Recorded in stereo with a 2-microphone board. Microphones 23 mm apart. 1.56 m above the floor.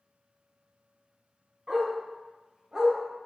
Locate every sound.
1.7 s a dog barking: 25° right (ahead or behind), 1.9 m; by 3.0 s 20° right (ahead or behind), 1.2 m